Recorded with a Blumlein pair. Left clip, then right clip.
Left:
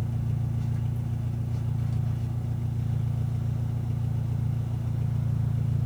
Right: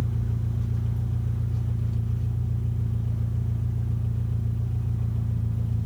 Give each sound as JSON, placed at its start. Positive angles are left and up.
{"t": 0.0, "sound": "an engine running", "azimuth_deg": 55, "distance_m": 1.8}